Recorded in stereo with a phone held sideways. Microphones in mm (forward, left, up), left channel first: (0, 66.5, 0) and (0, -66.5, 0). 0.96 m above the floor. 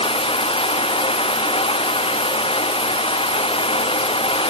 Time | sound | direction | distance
0.0 | running water | 45° left (ahead or behind) | ?